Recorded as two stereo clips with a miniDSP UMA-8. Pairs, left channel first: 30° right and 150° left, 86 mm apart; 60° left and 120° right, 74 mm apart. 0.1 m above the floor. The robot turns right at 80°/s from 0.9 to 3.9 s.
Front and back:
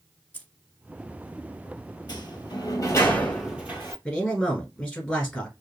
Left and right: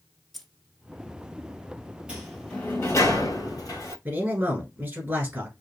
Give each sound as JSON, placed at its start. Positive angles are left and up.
{"t": 0.3, "sound": "keys jangling", "azimuth_deg": -20, "distance_m": 0.8}
{"t": 2.1, "sound": "a sliding door", "azimuth_deg": -50, "distance_m": 1.3}
{"t": 4.0, "sound": "a man speaking", "azimuth_deg": -95, "distance_m": 1.5}